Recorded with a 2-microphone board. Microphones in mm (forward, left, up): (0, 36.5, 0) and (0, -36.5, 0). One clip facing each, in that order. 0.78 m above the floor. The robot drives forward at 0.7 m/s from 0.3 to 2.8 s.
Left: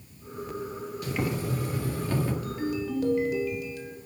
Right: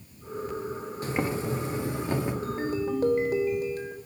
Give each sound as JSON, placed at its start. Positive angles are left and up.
{"t": 1.0, "sound": "boiling", "side_deg": -35, "distance_m": 1.3}
{"t": 2.4, "sound": "a ringtone", "side_deg": -35, "distance_m": 1.5}